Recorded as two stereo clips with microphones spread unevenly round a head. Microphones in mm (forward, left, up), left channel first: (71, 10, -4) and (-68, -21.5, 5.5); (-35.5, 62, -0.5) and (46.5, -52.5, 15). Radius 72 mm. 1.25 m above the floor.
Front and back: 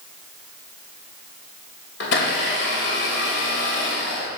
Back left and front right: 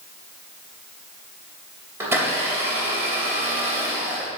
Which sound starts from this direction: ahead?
A blender, at 2.0 s.